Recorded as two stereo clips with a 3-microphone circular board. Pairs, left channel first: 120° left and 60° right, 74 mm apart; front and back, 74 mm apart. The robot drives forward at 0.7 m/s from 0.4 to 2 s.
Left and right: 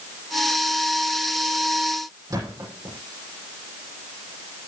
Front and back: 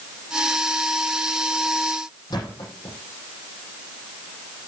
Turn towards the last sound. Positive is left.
turn(degrees=-25)